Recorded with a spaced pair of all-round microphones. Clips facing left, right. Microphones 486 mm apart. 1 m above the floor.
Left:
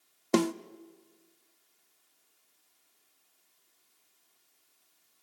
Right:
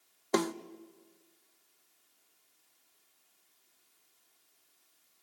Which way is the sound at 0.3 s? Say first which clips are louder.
Left 4 dB; 50° left (ahead or behind).